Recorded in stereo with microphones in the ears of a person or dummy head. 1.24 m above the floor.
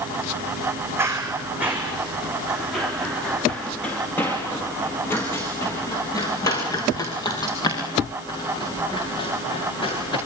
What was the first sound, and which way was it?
Running footsteps, 15° right (ahead or behind).